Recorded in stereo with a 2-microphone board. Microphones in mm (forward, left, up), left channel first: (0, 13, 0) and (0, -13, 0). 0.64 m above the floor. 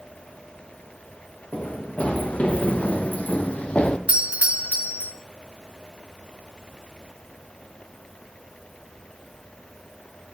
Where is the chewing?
I don't hear chewing.